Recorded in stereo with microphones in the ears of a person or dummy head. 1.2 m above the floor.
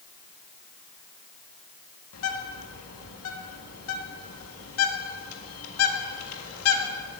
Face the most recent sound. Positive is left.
turn(degrees=85)